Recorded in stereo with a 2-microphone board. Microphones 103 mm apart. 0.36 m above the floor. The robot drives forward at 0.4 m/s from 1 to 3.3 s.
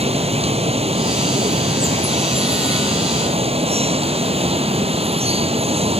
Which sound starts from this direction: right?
Running water, at 0.0 s.